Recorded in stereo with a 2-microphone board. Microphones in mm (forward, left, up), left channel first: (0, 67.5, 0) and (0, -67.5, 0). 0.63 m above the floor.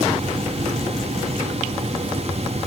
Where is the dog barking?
I don't hear a dog barking.